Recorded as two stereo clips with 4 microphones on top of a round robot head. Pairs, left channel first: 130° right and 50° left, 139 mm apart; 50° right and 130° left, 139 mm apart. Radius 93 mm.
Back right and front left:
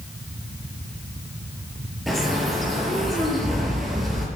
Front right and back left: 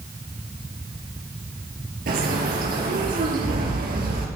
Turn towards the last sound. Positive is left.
turn(degrees=140)